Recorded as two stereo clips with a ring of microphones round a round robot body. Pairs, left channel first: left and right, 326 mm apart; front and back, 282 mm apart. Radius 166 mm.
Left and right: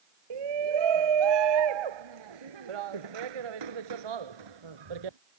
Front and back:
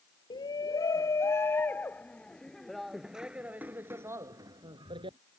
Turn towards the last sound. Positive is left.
turn(degrees=-105)